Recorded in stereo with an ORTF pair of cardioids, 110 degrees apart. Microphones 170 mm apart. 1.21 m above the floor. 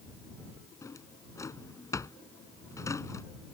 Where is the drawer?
20° left.